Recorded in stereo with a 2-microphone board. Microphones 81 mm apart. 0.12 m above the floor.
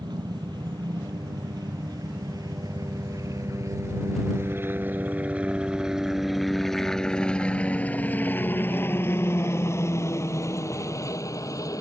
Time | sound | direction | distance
0.0 | a helicopter | 65° right (ahead or behind) | ?